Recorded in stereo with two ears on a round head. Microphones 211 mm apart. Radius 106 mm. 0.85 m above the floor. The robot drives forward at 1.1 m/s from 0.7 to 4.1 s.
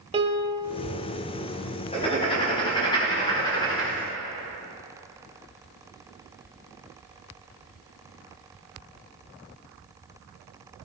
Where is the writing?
25° left (ahead or behind), 3.5 m; by 4.0 s 15° left (ahead or behind), 5.5 m.